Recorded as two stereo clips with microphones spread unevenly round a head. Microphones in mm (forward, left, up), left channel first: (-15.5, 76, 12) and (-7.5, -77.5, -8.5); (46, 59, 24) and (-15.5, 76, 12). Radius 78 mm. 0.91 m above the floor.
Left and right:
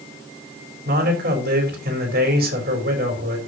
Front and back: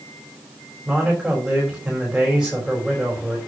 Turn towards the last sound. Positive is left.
turn(degrees=-115)